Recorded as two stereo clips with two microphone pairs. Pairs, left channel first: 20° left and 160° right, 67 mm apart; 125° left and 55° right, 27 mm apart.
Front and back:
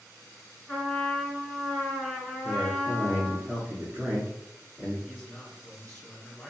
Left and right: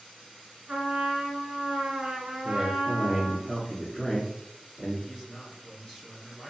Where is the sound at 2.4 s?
150° left, 1.6 m.